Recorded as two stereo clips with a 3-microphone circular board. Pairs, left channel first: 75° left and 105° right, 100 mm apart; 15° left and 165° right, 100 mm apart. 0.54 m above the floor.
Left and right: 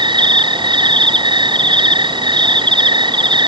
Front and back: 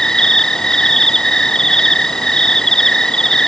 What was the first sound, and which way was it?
An insect, 70° right.